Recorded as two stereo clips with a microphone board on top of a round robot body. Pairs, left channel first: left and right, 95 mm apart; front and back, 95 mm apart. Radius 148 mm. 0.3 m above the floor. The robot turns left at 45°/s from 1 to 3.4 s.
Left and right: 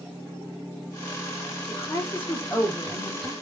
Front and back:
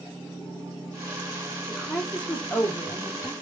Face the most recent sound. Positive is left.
turn(degrees=5)